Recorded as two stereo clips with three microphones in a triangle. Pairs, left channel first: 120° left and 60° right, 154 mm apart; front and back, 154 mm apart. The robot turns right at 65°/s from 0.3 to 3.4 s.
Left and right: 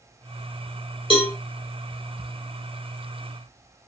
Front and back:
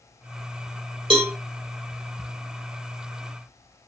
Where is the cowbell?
145° left, 1.0 m; by 1.3 s 160° left, 1.0 m.